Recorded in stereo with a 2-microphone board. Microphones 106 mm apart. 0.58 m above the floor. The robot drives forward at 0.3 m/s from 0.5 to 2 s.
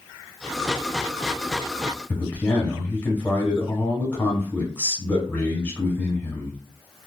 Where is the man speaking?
15° left (ahead or behind), 1.0 m.